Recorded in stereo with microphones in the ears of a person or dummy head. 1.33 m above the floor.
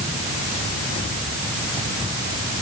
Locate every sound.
Only background noise.